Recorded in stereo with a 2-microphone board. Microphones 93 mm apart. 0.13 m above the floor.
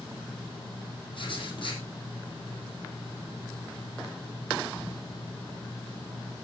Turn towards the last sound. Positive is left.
turn(degrees=60)  # may be behind; listen again after turning